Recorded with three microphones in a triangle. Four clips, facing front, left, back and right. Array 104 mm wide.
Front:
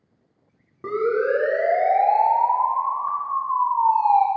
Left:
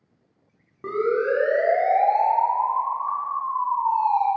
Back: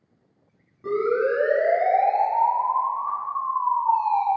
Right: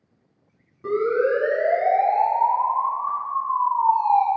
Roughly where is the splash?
I don't hear a splash.